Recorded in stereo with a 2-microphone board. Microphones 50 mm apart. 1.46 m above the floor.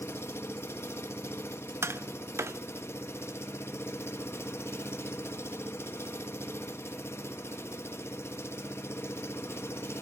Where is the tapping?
65° right (ahead or behind), 0.6 m.